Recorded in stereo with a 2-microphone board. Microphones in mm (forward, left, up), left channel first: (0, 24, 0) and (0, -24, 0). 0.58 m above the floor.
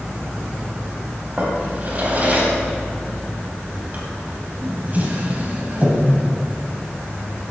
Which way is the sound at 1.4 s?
35° right (ahead or behind).